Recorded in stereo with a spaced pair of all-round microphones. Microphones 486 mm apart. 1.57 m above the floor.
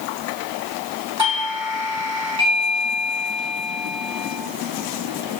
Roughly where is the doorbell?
Right.